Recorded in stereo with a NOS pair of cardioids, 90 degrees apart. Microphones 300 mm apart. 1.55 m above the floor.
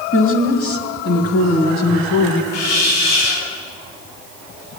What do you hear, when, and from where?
0.1 s a woman speaking: 45° left, 3 m; by 2.4 s 70° left, 1.9 m
2.5 s a hiss: 70° left, 4 m